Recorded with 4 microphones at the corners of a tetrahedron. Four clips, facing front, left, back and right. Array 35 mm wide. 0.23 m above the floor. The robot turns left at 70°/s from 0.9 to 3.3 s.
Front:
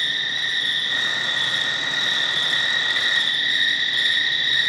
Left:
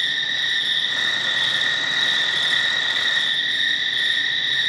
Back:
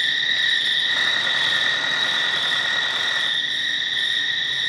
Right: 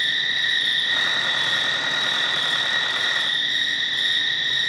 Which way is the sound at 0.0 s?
160° right.